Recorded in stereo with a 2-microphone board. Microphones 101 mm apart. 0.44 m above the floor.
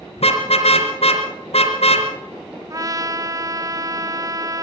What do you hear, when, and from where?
0.2 s a car horn: 80° left, 3.5 m
2.7 s a trumpet: 35° right (ahead or behind), 0.8 m